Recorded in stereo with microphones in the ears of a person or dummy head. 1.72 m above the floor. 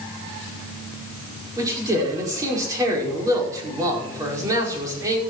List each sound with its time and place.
1.6 s a man speaking: 20° right (ahead or behind), 5 m